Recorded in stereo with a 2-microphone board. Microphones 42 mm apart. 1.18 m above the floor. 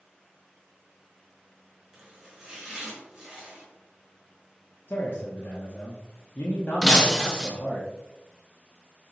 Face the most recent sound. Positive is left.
turn(degrees=15)  # may be behind; listen again after turning